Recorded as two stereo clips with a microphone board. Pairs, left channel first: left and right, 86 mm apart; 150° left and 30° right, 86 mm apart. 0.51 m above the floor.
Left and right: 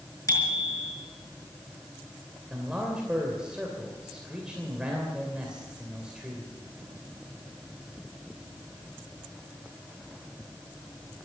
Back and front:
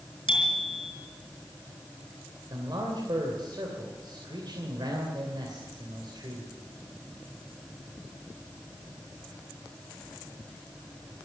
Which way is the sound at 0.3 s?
140° left.